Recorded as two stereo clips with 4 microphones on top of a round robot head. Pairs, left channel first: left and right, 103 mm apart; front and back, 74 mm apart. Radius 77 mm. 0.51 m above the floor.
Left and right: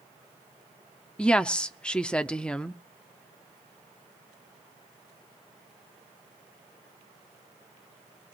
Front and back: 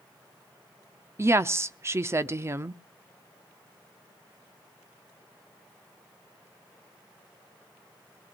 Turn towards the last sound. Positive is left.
turn(degrees=165)